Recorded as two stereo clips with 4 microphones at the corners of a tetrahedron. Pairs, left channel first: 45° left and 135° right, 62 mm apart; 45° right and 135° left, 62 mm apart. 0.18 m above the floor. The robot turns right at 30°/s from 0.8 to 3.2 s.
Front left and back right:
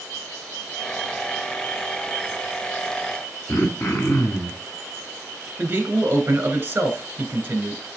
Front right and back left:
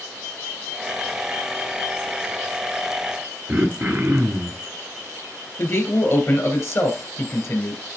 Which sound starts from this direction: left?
Throat clearing, at 3.5 s.